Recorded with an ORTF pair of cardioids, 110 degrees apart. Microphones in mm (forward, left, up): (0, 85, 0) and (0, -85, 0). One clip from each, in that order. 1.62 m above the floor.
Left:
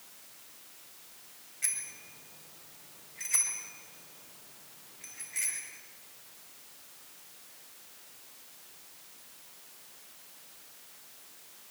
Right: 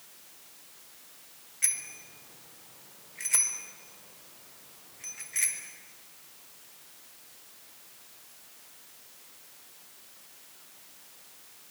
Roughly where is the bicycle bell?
Ahead right.